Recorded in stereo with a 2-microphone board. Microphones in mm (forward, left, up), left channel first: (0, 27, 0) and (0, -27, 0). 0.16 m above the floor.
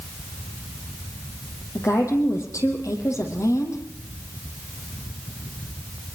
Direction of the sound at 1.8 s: 75° left (ahead or behind).